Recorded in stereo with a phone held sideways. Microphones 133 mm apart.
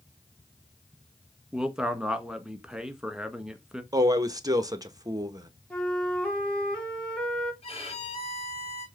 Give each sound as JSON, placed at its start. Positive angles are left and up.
{"t": 1.5, "sound": "a man speaking", "side_deg": -5, "distance_m": 1.3}
{"t": 3.9, "sound": "a man speaking", "side_deg": -25, "distance_m": 1.2}
{"t": 5.7, "sound": "a flute", "side_deg": 10, "distance_m": 2.5}
{"t": 7.6, "sound": "a violin", "side_deg": 50, "distance_m": 4.5}